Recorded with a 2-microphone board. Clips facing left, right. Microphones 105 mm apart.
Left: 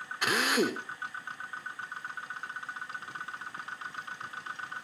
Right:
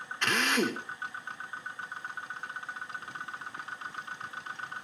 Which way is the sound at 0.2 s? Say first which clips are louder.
Left 1 dB; 10° left (ahead or behind).